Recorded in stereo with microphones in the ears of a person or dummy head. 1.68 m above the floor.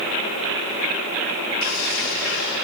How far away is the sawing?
About 6.5 m.